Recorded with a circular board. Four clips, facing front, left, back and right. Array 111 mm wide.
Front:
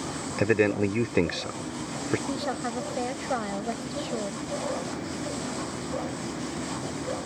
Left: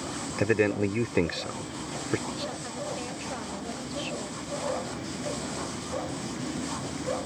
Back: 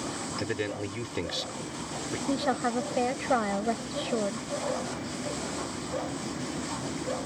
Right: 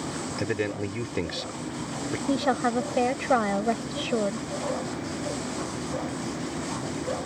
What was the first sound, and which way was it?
A man speaking, 25° left.